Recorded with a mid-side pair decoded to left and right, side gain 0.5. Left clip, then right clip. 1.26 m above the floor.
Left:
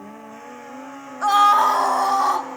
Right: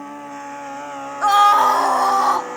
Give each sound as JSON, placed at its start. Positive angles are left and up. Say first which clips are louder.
{"t": 1.2, "sound": "a scream", "louder": "right 2 dB", "azimuth_deg": -15, "distance_m": 2.0}